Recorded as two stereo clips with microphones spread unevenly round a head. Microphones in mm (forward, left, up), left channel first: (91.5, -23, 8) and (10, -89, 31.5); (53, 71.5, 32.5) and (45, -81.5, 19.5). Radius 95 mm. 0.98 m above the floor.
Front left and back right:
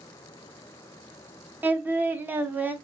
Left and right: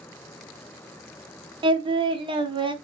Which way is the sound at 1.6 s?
60° right.